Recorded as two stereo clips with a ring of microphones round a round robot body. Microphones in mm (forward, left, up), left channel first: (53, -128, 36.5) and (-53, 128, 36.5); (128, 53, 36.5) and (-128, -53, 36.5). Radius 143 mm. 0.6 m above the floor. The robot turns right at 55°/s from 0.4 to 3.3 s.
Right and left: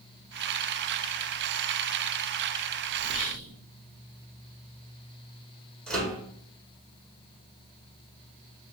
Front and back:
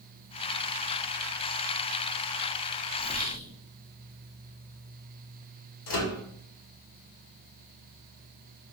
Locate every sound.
3.0 s whispering: 70° right, 1.1 m; by 3.5 s 55° right, 1.1 m
5.9 s a microwave: 20° left, 1.4 m